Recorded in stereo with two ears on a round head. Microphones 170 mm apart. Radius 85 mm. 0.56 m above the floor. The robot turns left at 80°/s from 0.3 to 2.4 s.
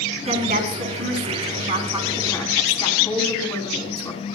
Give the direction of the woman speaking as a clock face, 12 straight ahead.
1 o'clock.